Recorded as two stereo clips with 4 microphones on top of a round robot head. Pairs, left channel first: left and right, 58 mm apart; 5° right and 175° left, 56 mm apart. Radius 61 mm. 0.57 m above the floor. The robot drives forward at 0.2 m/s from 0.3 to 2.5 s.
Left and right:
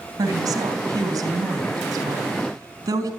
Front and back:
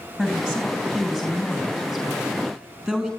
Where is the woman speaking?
100° right, 4 m; by 3.1 s 105° right, 4 m.